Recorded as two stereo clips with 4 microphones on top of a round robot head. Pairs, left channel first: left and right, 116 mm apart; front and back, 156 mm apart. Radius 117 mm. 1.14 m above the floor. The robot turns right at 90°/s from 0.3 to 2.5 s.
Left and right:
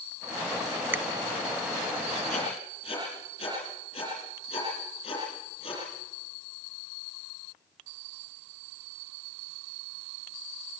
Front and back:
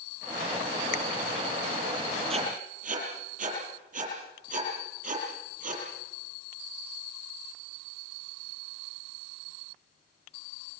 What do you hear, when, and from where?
0.9 s a finger snap: 20° right, 0.8 m; by 1.0 s 10° right, 0.8 m
2.3 s writing: 125° left, 7 m; by 5.8 s 145° left, 7 m